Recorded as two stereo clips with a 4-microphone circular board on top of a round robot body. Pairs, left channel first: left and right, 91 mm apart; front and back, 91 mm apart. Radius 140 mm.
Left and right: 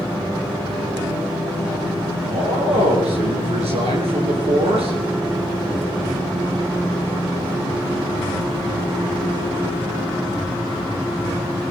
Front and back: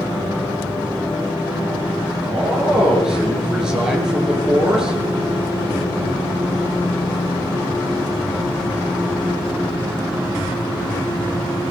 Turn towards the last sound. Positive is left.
turn(degrees=-95)